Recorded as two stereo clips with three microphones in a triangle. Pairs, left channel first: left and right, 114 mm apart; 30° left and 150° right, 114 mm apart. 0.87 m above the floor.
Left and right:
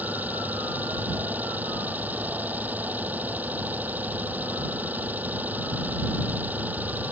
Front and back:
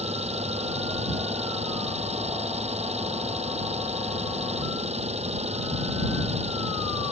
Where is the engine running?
165° right.